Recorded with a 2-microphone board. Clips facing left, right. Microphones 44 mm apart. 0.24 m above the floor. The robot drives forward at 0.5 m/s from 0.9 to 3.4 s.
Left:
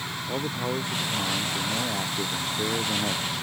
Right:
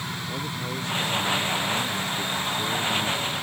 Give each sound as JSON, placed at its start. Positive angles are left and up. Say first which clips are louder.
{"t": 0.3, "sound": "a man speaking", "louder": "left 6 dB", "side_deg": 25}